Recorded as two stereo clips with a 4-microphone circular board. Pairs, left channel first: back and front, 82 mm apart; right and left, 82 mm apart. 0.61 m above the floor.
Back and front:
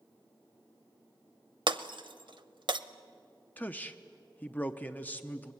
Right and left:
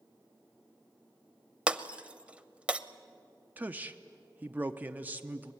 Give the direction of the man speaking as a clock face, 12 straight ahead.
8 o'clock.